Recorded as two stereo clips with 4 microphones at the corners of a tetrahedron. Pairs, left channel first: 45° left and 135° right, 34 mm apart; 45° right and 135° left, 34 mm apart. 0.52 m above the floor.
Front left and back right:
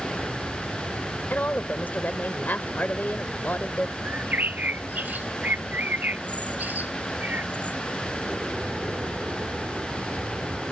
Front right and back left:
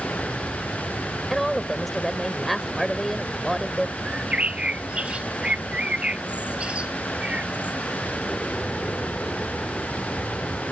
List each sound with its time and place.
0.0 s an aircraft: 90° right
1.3 s a woman speaking: 40° left
4.0 s a bird: 165° right